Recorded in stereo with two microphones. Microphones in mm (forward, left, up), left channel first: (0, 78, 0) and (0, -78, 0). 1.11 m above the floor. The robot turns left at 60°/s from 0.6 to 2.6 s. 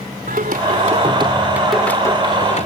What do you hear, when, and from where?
0.3 s singing: 110° right; by 2.7 s 130° left